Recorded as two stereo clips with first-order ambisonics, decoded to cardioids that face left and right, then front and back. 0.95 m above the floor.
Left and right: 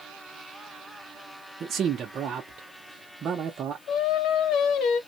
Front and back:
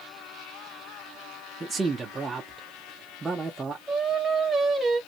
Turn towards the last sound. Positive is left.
turn(degrees=105)